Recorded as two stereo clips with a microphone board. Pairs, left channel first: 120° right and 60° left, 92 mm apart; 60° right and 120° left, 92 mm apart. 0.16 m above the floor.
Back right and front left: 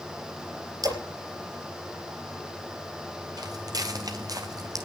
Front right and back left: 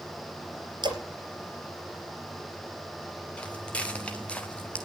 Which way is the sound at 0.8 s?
95° left.